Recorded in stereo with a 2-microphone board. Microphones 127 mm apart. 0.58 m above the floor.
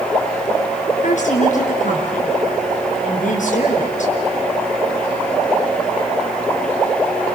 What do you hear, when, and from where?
1.0 s a woman speaking: 75° left (ahead or behind), 8 m